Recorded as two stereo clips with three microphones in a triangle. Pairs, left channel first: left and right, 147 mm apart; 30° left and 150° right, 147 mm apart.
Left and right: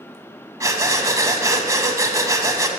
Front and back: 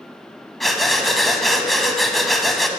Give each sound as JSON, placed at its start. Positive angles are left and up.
{"t": 0.6, "sound": "breathing", "azimuth_deg": -60, "distance_m": 1.0}